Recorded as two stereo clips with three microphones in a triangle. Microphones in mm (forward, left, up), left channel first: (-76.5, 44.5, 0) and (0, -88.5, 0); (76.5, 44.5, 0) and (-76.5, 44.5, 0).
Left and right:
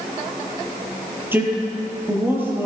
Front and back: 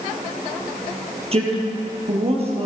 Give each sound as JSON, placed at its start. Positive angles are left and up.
{"t": 1.3, "sound": "a man speaking", "azimuth_deg": -135, "distance_m": 3.0}